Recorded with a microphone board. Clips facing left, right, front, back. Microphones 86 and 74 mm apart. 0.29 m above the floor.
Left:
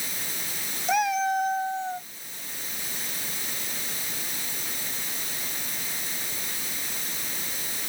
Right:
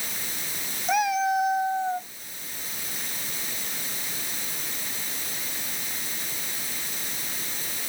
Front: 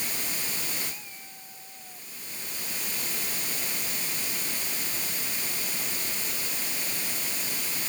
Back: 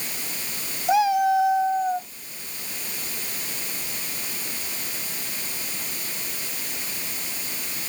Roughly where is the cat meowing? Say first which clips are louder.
Right 1 dB, back 29 dB; behind.